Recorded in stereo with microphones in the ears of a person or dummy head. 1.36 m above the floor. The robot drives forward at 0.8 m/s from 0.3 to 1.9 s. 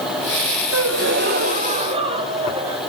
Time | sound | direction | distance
0.7 | a gasp | 70° right (ahead or behind) | 0.7 m